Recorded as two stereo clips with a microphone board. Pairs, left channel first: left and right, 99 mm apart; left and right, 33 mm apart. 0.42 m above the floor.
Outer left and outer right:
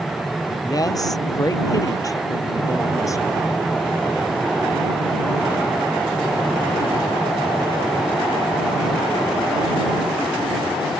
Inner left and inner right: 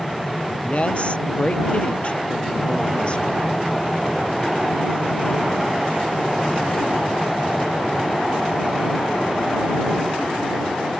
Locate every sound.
0.6 s a woman speaking: 40° left (ahead or behind); by 3.5 s 35° left (ahead or behind)